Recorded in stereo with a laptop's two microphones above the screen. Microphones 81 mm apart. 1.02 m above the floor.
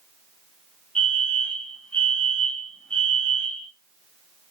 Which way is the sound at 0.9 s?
10° left (ahead or behind).